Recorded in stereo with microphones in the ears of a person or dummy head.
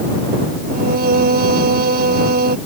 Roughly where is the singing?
Right.